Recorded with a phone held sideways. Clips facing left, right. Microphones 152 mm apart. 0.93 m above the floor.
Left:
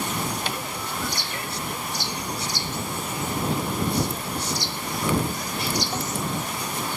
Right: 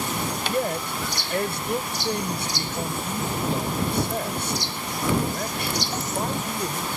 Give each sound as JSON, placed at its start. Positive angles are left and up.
{"t": 0.5, "sound": "a man speaking", "side_deg": -65}